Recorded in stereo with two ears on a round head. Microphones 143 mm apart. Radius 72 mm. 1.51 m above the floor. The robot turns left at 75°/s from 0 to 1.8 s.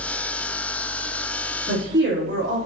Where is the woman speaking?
65° right (ahead or behind), 3.5 m; by 2.6 s 75° right (ahead or behind), 3.5 m.